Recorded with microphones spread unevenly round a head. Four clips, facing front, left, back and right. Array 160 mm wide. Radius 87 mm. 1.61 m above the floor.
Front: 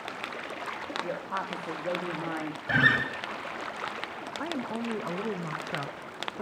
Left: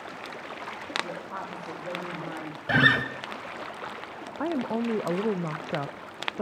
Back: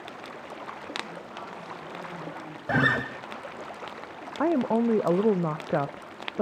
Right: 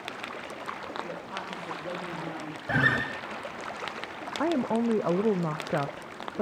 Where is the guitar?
170° left, 2.0 m.